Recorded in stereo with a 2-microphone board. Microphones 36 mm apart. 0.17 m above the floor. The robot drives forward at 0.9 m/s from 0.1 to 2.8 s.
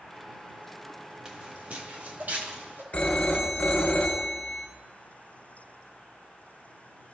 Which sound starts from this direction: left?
A phone ringing, at 2.9 s.